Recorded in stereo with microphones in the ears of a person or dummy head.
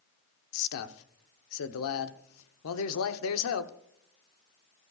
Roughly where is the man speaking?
Left.